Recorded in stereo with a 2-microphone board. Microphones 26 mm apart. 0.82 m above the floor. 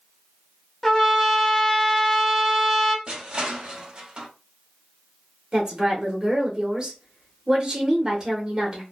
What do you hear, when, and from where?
0.8 s a trumpet: 10° left (ahead or behind), 0.6 m
3.1 s crushing: 30° right (ahead or behind), 0.9 m
5.5 s a woman speaking: 20° right (ahead or behind), 0.8 m